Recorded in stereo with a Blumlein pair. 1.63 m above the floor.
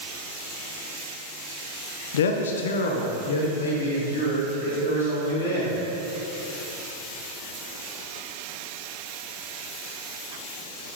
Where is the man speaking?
60° left, 0.5 m; by 5.8 s 75° left, 3 m.